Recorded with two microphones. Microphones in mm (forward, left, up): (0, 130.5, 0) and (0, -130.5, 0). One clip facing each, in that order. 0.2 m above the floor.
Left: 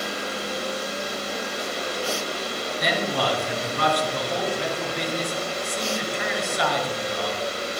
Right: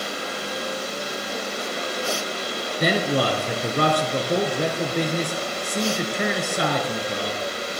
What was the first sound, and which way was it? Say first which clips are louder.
A man speaking: right 5 dB; 60° right (ahead or behind).